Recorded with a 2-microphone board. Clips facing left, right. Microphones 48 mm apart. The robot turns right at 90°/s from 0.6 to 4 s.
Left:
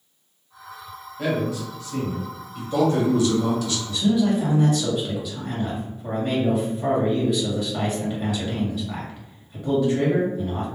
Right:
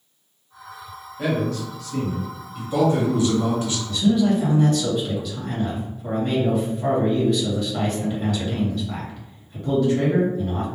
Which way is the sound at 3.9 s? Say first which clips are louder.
Right 2 dB; 15° left (ahead or behind).